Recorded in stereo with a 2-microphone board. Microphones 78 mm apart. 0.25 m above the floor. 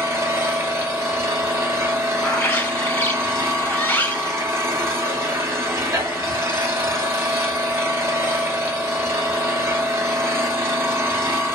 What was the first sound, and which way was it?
An engine running, 35° right (ahead or behind).